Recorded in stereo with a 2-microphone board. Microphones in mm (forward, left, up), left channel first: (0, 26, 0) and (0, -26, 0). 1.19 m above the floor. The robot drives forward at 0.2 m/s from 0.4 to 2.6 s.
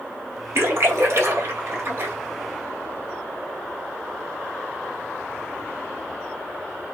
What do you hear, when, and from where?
0.6 s a splash: 55° right (ahead or behind), 1.9 m; by 2.1 s 50° right (ahead or behind), 2 m